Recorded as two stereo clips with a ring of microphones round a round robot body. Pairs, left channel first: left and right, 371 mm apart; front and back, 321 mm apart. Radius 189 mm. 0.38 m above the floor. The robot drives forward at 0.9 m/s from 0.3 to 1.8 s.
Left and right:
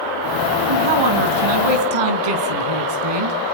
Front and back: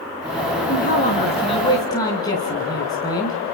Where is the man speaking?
65° right, 4.5 m; by 3.4 s 80° right, 4 m.